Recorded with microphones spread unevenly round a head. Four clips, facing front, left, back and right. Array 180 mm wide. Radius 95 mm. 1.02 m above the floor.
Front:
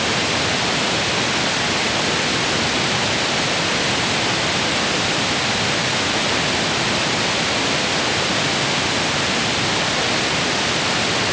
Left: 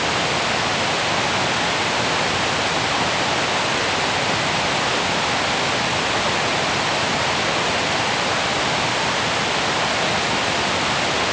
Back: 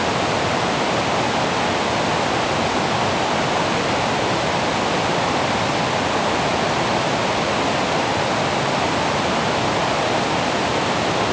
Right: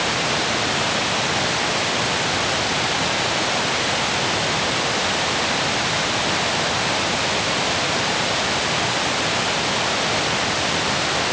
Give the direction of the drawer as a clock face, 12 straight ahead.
I don't hear a drawer.